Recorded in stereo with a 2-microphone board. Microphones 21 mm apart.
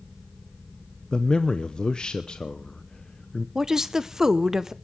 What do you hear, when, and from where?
1.1 s a man speaking: 45° left (ahead or behind), 0.8 m
3.5 s a woman speaking: 25° right (ahead or behind), 0.9 m